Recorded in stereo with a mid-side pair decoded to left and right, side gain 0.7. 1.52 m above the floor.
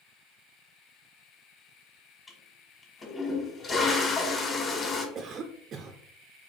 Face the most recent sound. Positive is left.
turn(degrees=-40)